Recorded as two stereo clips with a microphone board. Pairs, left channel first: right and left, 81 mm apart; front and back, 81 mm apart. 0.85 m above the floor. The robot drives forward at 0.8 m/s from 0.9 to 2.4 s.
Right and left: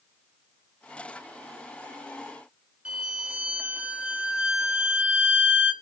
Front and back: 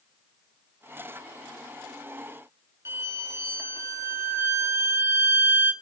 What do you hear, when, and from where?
2.9 s a violin: 155° left, 0.8 m